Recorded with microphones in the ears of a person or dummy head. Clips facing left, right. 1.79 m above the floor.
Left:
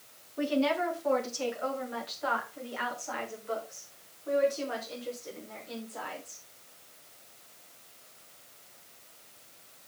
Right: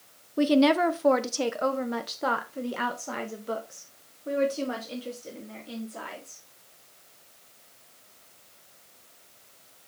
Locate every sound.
0.4 s a woman speaking: 55° right (ahead or behind), 0.8 m; by 6.4 s 45° right (ahead or behind), 4.5 m